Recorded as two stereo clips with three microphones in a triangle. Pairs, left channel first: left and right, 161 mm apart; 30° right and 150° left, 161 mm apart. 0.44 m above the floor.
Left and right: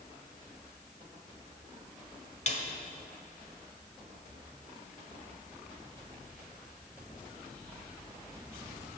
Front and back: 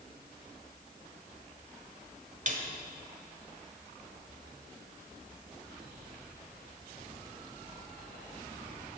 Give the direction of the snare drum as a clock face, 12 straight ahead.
8 o'clock.